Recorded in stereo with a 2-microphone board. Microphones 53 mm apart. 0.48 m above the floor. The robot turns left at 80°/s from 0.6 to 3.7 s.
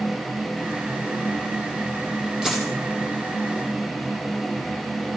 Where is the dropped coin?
10° right (ahead or behind), 3.5 m; by 2.7 s 15° left (ahead or behind), 3.5 m.